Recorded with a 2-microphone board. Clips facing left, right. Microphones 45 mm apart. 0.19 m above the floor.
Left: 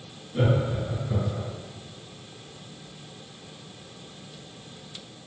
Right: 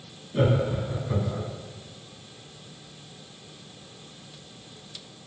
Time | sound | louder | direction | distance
0.3 | laughter | right 1 dB | 25° right (ahead or behind) | 1.4 m